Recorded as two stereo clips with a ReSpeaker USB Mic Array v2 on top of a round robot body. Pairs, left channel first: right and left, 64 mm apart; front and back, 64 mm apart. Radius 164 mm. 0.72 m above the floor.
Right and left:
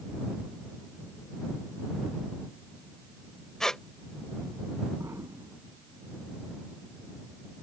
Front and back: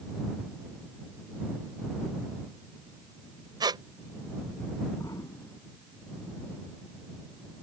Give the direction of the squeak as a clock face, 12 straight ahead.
6 o'clock.